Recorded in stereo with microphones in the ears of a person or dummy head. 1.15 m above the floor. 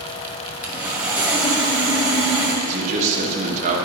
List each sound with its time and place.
0.6 s sawing: 10° right (ahead or behind), 0.7 m
2.6 s a man speaking: 40° right (ahead or behind), 1.1 m